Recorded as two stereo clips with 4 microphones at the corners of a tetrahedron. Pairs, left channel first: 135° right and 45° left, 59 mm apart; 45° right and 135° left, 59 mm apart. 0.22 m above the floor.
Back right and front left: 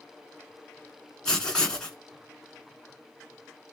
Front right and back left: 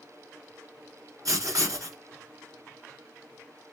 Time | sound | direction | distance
1.2 | writing | 145° left | 1.2 m